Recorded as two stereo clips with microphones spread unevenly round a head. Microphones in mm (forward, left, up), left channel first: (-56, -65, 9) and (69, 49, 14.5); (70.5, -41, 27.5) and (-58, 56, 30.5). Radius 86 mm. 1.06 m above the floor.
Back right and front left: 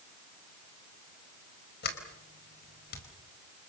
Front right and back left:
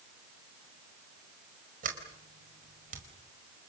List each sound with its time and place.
1.8 s a sliding door: 175° right, 4.5 m